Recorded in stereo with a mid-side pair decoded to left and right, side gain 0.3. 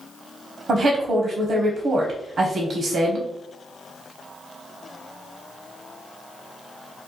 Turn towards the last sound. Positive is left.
turn(degrees=-70)